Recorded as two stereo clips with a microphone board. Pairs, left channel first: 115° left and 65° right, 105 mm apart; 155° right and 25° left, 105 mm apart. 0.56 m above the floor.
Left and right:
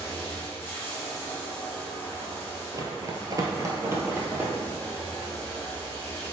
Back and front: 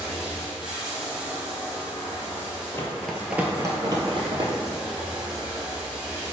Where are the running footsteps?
105° right, 0.7 m; by 4.5 s 5° left, 1.1 m.